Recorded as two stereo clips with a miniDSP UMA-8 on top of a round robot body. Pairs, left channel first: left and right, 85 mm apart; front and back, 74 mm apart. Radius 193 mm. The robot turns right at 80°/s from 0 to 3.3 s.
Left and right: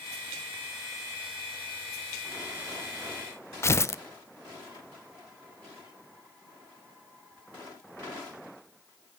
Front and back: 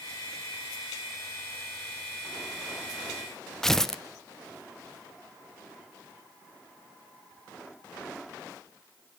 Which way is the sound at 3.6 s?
80° left.